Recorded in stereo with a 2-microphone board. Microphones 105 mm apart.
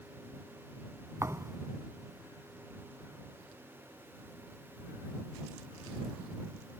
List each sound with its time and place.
1.2 s a thud: 25° right (ahead or behind)